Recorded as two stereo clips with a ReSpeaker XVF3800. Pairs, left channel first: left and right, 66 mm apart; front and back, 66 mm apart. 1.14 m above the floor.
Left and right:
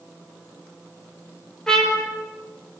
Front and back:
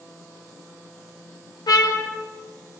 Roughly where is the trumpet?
Ahead.